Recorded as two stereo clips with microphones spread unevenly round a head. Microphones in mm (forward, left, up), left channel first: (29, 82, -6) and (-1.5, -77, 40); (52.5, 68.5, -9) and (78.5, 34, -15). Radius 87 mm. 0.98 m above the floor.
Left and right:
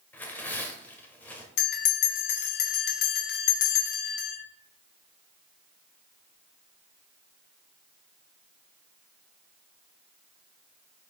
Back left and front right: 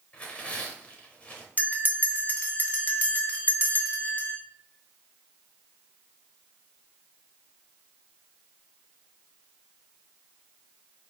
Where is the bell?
75° left, 1.4 m.